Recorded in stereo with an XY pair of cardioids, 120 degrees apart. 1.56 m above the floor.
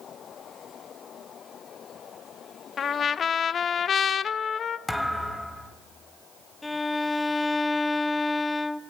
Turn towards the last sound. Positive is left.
turn(degrees=15)